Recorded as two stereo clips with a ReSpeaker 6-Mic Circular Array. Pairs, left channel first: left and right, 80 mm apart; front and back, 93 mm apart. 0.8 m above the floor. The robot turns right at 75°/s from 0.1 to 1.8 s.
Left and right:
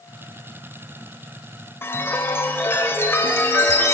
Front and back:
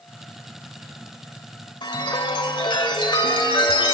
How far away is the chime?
About 1.9 m.